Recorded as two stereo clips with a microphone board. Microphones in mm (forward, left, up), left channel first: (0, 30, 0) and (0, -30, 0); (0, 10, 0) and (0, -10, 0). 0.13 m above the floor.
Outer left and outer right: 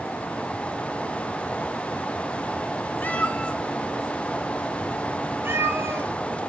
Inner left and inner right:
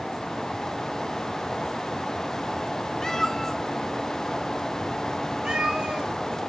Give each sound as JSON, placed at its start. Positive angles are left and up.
{"t": 3.0, "sound": "a cat meowing", "side_deg": 30, "distance_m": 0.8}